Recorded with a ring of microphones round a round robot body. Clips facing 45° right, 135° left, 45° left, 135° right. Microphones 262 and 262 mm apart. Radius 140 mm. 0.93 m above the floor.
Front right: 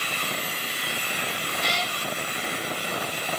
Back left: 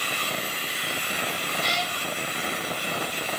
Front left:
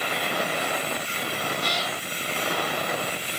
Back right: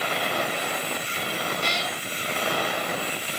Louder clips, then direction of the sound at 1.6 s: Front right 2 dB, even; 70° right.